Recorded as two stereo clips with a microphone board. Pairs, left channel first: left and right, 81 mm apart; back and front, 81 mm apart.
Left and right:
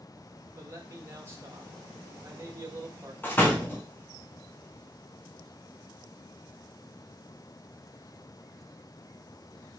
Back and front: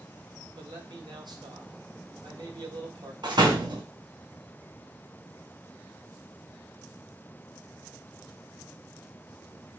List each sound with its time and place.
0.6 s a man speaking: 35° right, 1.2 m
3.2 s a door slam: 25° left, 1.1 m